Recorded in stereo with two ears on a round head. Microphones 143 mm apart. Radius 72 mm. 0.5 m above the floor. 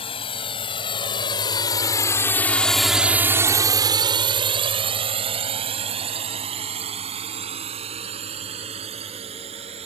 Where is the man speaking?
I don't hear a man speaking.